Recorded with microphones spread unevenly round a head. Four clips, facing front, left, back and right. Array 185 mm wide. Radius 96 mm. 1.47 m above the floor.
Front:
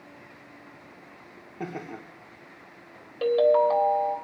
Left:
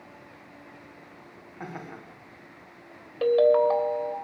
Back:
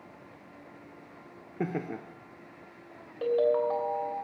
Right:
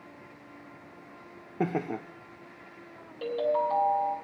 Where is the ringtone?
55° left, 3.5 m.